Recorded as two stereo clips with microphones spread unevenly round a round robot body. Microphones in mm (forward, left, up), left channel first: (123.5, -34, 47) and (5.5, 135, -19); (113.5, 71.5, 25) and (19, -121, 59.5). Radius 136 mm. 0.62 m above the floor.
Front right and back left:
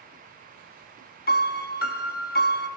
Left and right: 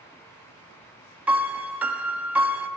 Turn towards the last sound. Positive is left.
turn(degrees=-40)